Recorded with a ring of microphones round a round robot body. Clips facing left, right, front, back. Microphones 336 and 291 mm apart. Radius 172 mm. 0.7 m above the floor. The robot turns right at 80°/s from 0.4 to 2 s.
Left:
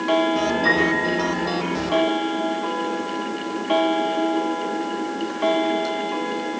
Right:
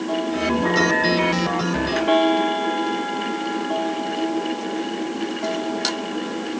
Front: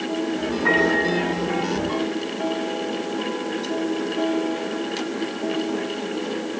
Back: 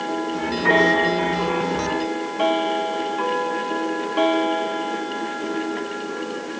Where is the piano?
130° left, 7 m; by 1.3 s 175° right, 7 m.